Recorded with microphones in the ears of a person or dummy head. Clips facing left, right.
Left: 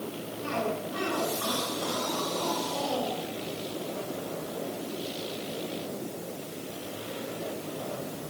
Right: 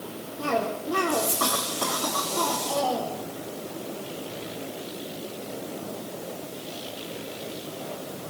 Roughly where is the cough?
Right.